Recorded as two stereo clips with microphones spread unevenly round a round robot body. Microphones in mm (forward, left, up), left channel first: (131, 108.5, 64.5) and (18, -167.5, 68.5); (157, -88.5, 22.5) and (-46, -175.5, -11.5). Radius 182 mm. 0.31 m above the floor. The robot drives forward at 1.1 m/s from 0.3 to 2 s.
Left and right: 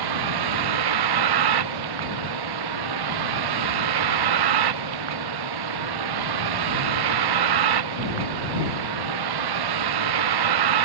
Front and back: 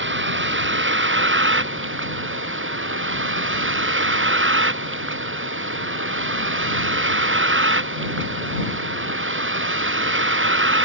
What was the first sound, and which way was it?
A vehicle, 120° right.